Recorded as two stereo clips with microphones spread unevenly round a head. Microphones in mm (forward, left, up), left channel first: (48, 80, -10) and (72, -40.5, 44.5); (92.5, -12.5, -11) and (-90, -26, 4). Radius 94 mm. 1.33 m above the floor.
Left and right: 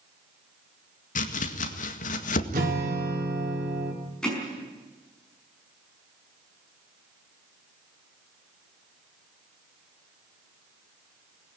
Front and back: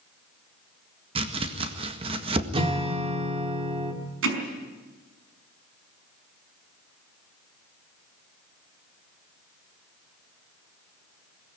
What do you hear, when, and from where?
1.1 s chopping: 120° left, 1.8 m
2.5 s a guitar: 115° right, 3 m
4.2 s hammering: 170° right, 5 m